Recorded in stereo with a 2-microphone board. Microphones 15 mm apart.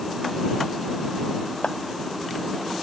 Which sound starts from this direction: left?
A clap, at 1.6 s.